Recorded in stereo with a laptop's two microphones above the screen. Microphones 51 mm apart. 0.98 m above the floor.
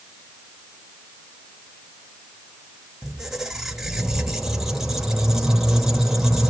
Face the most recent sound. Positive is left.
turn(degrees=-5)  # may be behind; listen again after turning